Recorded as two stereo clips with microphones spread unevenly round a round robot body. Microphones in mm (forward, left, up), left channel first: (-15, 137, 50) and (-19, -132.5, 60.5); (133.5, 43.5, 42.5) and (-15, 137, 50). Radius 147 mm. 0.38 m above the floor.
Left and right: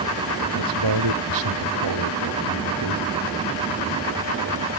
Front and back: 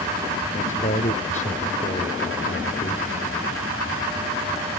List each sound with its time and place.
0.5 s a man speaking: 95° right